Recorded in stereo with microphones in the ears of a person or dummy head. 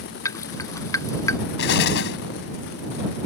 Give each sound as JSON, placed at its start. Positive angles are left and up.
{"t": 0.2, "sound": "dripping", "side_deg": 20}
{"t": 1.6, "sound": "an explosion", "side_deg": 65}